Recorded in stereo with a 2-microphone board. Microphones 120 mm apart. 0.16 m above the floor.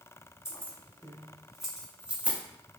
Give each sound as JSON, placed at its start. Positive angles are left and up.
{"t": 0.5, "sound": "keys jangling", "side_deg": 20, "distance_m": 1.1}